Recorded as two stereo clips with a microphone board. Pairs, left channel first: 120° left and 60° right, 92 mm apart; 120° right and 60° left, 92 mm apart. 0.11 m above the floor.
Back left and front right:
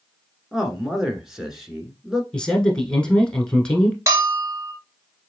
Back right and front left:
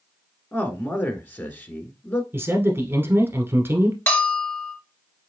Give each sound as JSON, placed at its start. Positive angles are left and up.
{"t": 0.5, "sound": "a man speaking", "azimuth_deg": -140, "distance_m": 1.1}
{"t": 2.3, "sound": "a man speaking", "azimuth_deg": 55, "distance_m": 1.2}
{"t": 4.1, "sound": "a bell", "azimuth_deg": -65, "distance_m": 1.5}